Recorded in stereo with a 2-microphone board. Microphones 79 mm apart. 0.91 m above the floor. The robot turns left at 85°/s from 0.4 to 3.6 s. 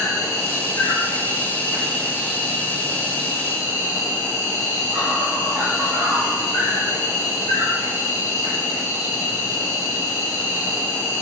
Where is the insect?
130° left, 1.5 m; by 11.2 s 140° right, 1.5 m.